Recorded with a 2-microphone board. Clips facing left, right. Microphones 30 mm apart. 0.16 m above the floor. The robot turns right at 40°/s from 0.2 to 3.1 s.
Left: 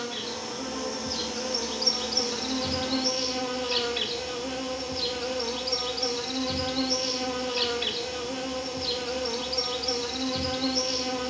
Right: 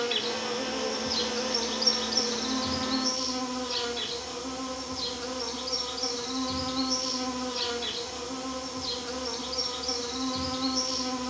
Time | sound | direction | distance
0.0 | an insect | 55° right | 1.6 m